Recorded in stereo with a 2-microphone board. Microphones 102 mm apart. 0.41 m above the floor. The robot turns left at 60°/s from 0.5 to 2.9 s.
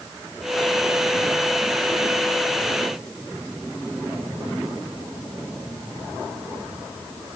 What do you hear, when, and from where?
Only background noise.